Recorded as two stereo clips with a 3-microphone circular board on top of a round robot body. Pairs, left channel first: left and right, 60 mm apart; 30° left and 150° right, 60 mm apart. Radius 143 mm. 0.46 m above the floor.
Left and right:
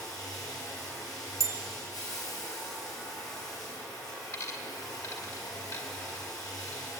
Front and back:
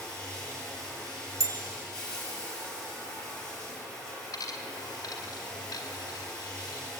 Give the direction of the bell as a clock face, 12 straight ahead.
4 o'clock.